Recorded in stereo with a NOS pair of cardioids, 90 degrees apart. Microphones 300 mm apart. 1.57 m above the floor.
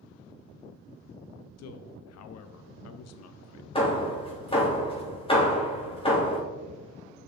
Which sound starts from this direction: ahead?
Hammering, at 3.8 s.